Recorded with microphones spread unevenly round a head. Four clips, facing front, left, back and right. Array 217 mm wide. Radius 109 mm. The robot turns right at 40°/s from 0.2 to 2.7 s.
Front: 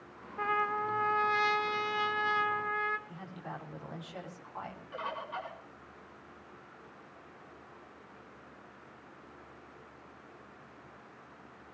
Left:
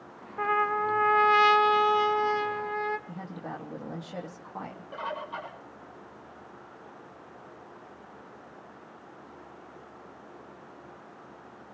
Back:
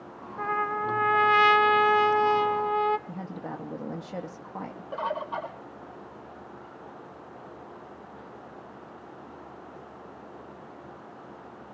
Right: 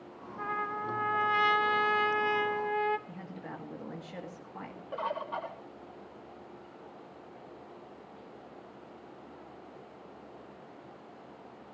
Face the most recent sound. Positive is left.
turn(degrees=-170)